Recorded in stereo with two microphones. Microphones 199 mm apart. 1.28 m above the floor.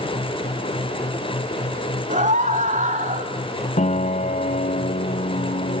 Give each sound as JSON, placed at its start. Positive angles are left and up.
{"t": 2.1, "sound": "a scream", "side_deg": -40, "distance_m": 3.0}
{"t": 3.8, "sound": "a piano", "side_deg": 35, "distance_m": 0.7}